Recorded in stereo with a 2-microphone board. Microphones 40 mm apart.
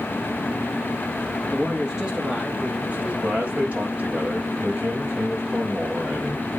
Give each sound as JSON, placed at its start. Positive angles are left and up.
{"t": 1.5, "sound": "a man speaking", "side_deg": -5, "distance_m": 1.4}
{"t": 3.2, "sound": "a man speaking", "side_deg": -40, "distance_m": 4.5}